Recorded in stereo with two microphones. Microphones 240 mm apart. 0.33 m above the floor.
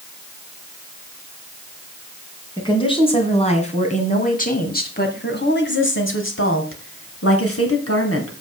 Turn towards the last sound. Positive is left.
turn(degrees=70)  # may be behind; listen again after turning